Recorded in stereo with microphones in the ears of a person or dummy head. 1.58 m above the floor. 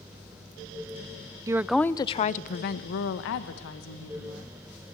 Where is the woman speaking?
20° right (ahead or behind), 0.7 m; by 4.5 s 80° left, 2.5 m.